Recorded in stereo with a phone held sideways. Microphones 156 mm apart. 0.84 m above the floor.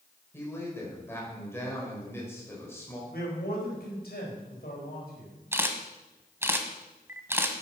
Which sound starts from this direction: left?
A man speaking, at 3.1 s.